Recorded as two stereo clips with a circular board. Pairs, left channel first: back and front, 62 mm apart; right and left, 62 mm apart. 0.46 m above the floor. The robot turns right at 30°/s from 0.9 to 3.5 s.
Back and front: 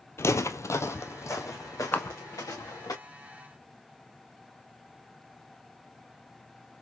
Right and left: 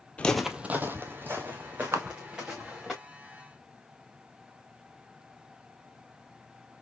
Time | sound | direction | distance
0.2 | footsteps | 155° right | 0.6 m
1.9 | a camera shutter | 120° left | 0.8 m